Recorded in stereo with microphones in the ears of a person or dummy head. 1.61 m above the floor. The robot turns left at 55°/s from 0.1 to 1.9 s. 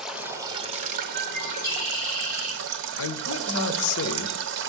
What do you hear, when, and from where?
0.0 s running water: straight ahead, 0.7 m; by 4.7 s 100° right, 0.7 m
1.1 s a bird: 160° left, 1.6 m; by 3.6 s 120° left, 1.6 m
3.0 s a man speaking: 80° left, 0.6 m